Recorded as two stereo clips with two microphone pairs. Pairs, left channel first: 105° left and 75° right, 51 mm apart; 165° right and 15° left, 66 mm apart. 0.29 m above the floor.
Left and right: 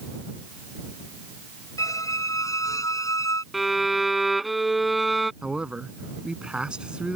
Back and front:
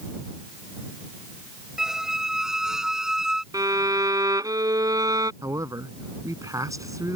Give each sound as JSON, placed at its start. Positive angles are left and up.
{"t": 1.8, "sound": "a squeak", "azimuth_deg": 95}
{"t": 3.5, "sound": "a violin", "azimuth_deg": 10}
{"t": 5.4, "sound": "a man speaking", "azimuth_deg": -5}